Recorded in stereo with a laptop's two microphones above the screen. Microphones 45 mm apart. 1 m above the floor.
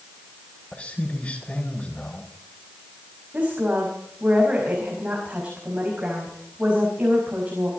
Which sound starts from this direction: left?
A man speaking, at 0.7 s.